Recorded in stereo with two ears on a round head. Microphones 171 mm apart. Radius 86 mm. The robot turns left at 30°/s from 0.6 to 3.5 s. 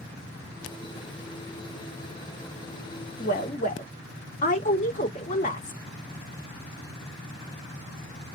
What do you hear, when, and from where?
3.2 s a woman speaking: 50° left (ahead or behind), 2.0 m; by 5.8 s 40° left (ahead or behind), 2.0 m